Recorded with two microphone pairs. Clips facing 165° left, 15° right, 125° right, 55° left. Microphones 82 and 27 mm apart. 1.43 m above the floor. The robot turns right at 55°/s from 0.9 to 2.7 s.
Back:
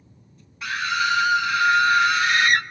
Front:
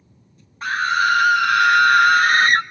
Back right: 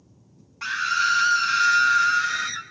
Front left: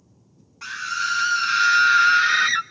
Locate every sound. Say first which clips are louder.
0.6 s a scream: front 5 dB, back right 4 dB; 60° right, 0.7 m; by 2.6 s 35° left, 0.7 m